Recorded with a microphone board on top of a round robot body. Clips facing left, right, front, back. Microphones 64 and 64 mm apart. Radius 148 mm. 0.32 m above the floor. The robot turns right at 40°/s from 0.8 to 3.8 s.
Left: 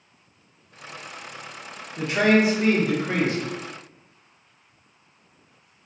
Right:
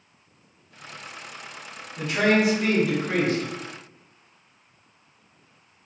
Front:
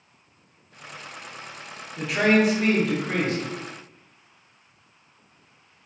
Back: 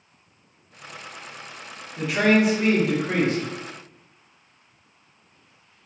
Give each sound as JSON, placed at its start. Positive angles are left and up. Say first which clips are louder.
{"t": 2.0, "sound": "a man speaking", "louder": "left 2 dB, back 1 dB", "azimuth_deg": 80, "distance_m": 1.0}